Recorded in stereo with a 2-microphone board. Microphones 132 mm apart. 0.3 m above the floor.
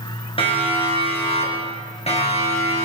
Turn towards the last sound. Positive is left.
turn(degrees=60)  # may be behind; listen again after turning